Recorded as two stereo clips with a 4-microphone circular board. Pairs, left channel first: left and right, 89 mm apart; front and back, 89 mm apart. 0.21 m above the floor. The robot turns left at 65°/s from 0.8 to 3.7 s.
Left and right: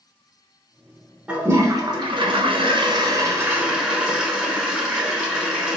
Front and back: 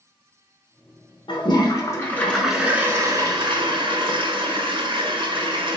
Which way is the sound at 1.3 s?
10° right.